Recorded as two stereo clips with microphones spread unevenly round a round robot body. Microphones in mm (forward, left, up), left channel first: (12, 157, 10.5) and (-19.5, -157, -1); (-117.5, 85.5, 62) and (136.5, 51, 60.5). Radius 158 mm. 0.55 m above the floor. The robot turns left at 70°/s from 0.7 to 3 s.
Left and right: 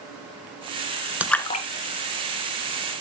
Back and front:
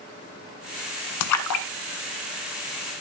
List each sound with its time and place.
1.2 s a splash: straight behind, 1.0 m; by 1.7 s 145° left, 1.0 m